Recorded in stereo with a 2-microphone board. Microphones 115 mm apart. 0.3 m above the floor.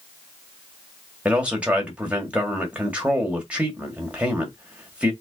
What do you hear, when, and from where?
1.2 s a man speaking: 10° right (ahead or behind), 1.7 m